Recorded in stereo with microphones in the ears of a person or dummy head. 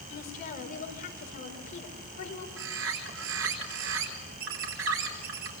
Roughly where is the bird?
Right.